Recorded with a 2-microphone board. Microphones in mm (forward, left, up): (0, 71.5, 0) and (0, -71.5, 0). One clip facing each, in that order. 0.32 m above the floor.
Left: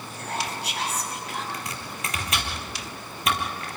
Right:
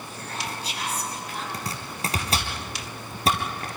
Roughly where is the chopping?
Right.